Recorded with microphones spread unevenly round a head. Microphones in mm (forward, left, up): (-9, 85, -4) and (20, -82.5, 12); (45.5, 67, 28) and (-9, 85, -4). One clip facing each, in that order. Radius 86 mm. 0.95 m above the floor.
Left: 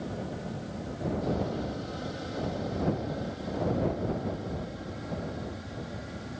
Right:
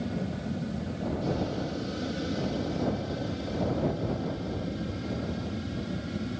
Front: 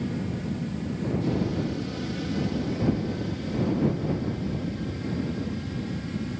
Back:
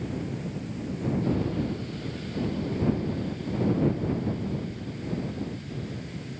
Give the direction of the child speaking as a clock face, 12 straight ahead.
I don't hear a child speaking.